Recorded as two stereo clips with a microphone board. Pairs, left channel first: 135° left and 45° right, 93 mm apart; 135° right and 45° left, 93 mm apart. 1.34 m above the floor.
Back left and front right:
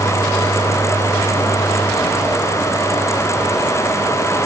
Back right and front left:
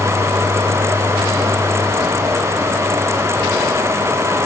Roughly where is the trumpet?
No trumpet in this recording.